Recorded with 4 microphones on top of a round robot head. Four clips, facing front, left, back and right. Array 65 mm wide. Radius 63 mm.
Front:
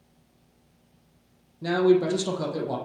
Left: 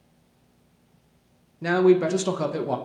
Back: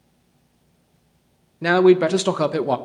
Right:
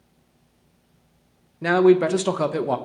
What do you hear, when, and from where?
1.6 s a man speaking: 160° right, 0.8 m